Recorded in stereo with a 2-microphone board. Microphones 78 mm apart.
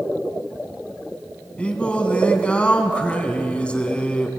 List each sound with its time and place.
1.6 s singing: 15° left (ahead or behind), 2.5 m